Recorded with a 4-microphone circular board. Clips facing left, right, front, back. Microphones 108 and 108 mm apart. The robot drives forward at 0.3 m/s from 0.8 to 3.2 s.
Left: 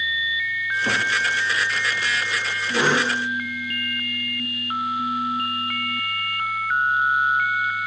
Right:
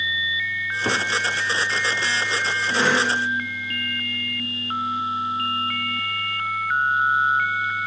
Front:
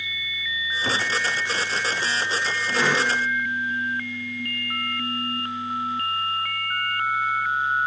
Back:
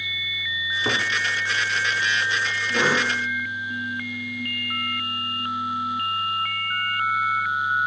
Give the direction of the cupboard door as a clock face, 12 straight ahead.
4 o'clock.